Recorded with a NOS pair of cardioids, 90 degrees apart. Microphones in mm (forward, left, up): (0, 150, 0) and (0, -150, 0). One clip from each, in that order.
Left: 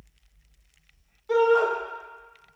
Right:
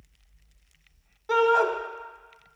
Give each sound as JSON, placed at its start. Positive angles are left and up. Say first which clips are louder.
{"t": 1.3, "sound": "a shout", "louder": "left 1 dB", "azimuth_deg": -30, "distance_m": 1.2}